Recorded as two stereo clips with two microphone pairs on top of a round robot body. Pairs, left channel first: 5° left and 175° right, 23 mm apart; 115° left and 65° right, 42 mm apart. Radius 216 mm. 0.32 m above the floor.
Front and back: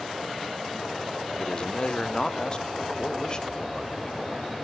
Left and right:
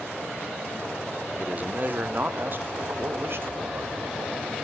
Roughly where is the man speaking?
Ahead.